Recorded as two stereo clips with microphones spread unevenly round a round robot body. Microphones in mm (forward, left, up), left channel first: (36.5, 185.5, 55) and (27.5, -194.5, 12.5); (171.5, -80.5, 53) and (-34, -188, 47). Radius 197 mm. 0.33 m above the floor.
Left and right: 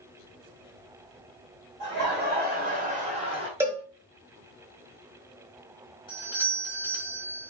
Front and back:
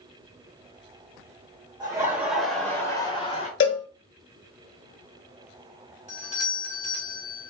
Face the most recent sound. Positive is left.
turn(degrees=10)